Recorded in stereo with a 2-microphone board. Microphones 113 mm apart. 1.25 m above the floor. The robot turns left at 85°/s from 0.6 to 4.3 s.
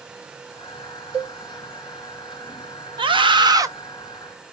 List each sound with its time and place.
1.1 s a cowbell: 60° right (ahead or behind), 1.3 m; by 1.4 s 75° right (ahead or behind), 1.3 m
3.0 s a scream: 80° right, 0.8 m; by 3.7 s 140° right, 0.8 m